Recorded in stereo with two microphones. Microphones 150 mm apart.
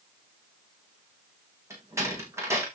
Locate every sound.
1.7 s a door slam: 20° right (ahead or behind), 6 m